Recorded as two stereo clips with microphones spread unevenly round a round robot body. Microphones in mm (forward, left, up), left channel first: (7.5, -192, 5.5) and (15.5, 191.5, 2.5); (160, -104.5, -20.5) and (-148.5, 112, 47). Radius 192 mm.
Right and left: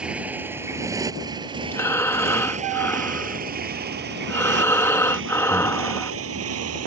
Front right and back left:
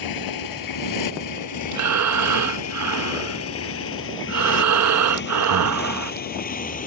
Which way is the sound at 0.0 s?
Straight ahead.